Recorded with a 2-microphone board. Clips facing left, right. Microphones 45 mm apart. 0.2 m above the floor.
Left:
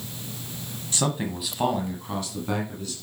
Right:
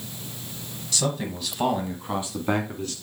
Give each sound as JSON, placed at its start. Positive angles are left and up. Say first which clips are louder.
{"t": 0.9, "sound": "a man speaking", "louder": "left 1 dB", "side_deg": 30, "distance_m": 1.3}